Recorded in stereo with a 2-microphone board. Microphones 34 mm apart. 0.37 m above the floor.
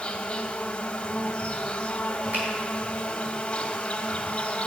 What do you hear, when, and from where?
0.0 s an insect: 30° left (ahead or behind), 0.8 m
2.3 s a finger snap: 70° right (ahead or behind), 3.5 m